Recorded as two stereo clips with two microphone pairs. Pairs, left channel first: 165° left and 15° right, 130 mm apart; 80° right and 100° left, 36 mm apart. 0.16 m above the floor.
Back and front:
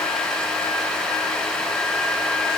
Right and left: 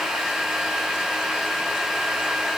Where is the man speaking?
I don't hear a man speaking.